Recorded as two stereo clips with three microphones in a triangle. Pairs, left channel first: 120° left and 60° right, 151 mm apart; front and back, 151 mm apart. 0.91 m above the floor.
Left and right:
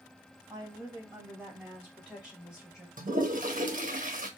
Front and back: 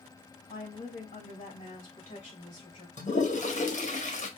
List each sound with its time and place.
0.5 s a woman speaking: 5° left, 1.3 m; by 2.9 s 50° left, 2 m
3.0 s a toilet flushing: 35° right, 1.0 m